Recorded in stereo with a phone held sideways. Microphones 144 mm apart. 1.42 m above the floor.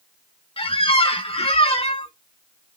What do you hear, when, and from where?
0.6 s a squeak: 40° left (ahead or behind), 0.5 m